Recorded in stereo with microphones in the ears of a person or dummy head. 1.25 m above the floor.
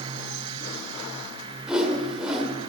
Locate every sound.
1.7 s a whoosh: 5° right (ahead or behind), 2.0 m